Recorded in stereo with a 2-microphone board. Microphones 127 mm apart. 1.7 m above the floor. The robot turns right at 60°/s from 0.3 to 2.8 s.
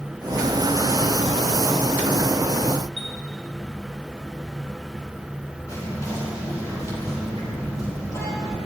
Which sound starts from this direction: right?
A chime, at 3.0 s.